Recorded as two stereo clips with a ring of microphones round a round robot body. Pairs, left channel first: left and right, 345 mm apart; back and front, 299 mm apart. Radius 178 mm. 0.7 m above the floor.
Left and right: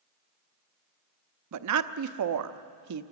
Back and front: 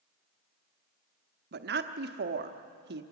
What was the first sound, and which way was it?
A woman speaking, 55° right.